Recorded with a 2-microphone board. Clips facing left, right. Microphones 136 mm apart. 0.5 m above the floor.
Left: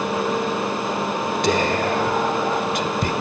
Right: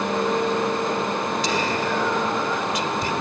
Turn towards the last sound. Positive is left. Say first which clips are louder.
# left 4 dB
turn(degrees=55)  # may be behind; listen again after turning